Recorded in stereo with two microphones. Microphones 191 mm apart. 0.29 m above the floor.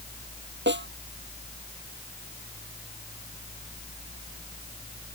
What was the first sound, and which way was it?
A snare drum, 80° right.